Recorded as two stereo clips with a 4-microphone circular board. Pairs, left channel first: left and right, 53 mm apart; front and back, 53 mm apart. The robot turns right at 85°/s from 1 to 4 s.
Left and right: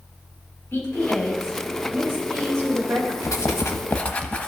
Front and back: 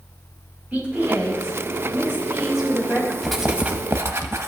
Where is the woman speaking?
130° left, 4.5 m; by 3.1 s 50° right, 4.5 m.